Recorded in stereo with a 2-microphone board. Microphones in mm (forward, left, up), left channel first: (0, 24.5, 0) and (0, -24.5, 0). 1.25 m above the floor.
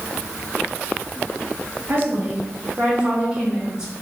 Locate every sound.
1.9 s a woman speaking: 50° right (ahead or behind), 2.5 m; by 3.9 s 15° right (ahead or behind), 4 m